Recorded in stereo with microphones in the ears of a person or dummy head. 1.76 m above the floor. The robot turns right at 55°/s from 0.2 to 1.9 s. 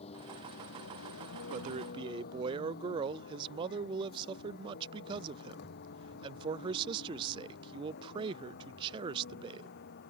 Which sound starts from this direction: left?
A vehicle, at 0.0 s.